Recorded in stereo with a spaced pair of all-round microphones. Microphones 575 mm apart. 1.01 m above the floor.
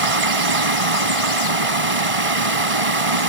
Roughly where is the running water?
Right.